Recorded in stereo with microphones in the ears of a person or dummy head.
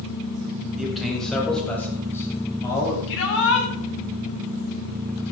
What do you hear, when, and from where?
0.8 s a man speaking: centre (ahead or behind), 7.5 m; by 3.0 s 20° left (ahead or behind), 8.5 m
3.1 s a shout: 65° left (ahead or behind), 8.5 m